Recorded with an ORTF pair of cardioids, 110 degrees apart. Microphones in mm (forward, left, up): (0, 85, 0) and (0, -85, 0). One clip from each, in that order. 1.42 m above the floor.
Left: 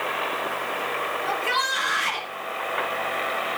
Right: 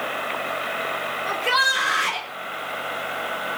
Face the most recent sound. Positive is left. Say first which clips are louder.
# right 5 dB
turn(degrees=-30)